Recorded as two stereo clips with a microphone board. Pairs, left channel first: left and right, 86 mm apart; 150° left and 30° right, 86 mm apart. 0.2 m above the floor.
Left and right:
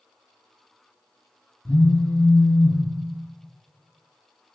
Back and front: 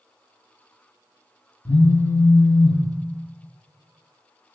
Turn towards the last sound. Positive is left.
turn(degrees=130)